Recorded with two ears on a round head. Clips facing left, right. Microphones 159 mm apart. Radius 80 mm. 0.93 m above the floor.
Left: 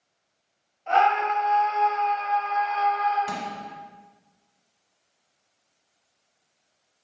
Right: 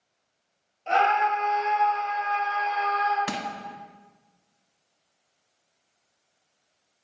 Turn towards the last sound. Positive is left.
turn(degrees=-70)  # may be behind; listen again after turning